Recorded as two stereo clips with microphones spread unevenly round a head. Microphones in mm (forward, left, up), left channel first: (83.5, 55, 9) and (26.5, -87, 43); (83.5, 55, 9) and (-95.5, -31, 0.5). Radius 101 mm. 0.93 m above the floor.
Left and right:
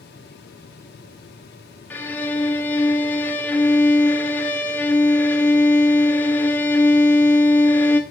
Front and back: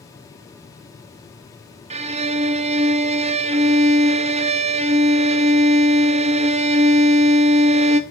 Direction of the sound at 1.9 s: 145° left.